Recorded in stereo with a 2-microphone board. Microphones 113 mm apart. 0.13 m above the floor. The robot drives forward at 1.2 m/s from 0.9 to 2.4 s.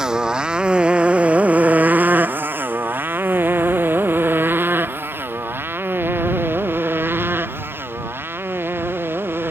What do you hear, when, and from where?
0.0 s a motorcycle: 5° right (ahead or behind); by 9.5 s 20° right (ahead or behind)